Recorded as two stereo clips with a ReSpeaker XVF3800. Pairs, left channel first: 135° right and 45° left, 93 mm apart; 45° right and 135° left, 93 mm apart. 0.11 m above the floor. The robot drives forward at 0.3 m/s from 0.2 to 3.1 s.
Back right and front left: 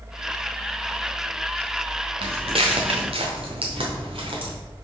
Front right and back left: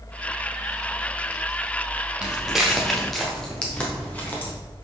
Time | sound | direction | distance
2.2 | footsteps | 55° left | 0.9 m